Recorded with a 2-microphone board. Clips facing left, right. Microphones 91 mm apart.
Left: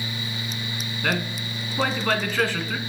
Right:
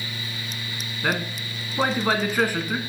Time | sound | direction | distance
1.0 | a man speaking | 15° right (ahead or behind) | 1.2 m